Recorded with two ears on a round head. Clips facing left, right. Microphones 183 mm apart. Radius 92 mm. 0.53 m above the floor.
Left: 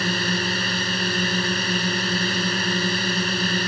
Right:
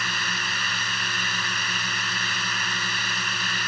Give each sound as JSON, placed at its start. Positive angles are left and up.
{"t": 0.0, "sound": "a drone", "side_deg": 30}